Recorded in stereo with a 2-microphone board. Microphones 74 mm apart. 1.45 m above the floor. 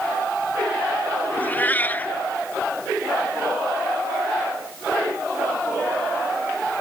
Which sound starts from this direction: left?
A cat meowing, at 1.4 s.